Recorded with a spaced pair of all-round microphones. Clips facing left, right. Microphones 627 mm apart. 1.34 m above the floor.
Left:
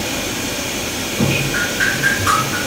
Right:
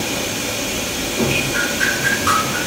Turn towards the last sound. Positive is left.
turn(degrees=40)  # may be behind; listen again after turning